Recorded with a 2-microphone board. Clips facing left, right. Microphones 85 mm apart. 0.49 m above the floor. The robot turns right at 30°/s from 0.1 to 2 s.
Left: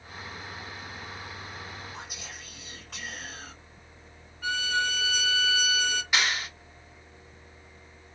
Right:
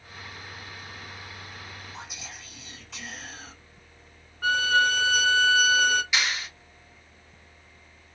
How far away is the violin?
About 0.5 m.